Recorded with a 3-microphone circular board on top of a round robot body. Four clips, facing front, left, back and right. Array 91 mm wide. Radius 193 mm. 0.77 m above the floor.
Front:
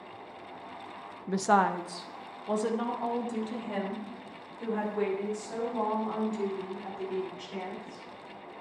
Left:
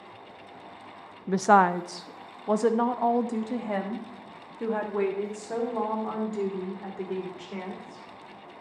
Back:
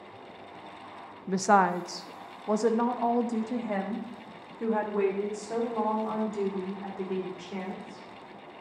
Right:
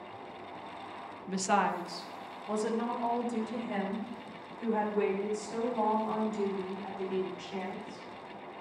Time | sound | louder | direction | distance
1.3 | a woman speaking | left 9 dB, back 2 dB | 95° left | 0.7 m